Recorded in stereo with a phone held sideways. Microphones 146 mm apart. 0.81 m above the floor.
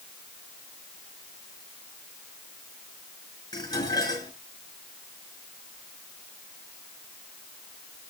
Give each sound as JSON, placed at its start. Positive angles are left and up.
{"t": 3.5, "sound": "dishes clattering", "side_deg": 25, "distance_m": 8.0}